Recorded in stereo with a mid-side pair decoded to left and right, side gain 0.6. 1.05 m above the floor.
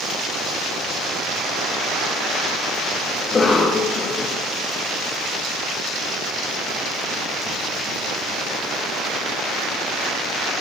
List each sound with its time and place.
3.2 s a cough: 30° left, 0.6 m